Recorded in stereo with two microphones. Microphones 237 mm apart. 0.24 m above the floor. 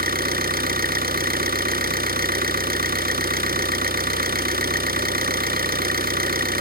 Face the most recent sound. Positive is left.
turn(degrees=-40)  # may be behind; listen again after turning